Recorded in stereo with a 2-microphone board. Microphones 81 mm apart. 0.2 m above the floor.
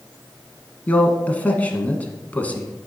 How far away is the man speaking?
About 1.7 m.